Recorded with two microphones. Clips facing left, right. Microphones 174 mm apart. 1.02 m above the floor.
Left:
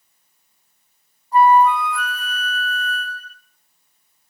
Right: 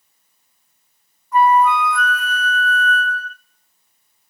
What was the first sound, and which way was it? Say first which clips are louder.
A flute: left 1 dB; 30° left (ahead or behind).